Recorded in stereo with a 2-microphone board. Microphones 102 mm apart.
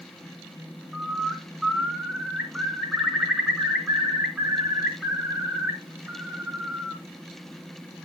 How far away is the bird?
About 1.5 m.